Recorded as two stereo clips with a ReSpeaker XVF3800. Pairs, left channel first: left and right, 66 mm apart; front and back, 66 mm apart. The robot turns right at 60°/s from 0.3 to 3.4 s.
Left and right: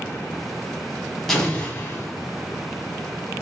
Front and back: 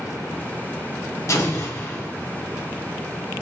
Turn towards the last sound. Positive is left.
turn(degrees=135)